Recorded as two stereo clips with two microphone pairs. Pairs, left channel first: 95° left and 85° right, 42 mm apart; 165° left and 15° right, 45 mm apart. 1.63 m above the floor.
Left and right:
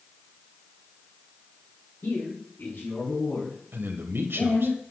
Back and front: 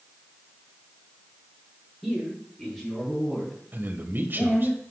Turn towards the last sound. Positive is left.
turn(degrees=-60)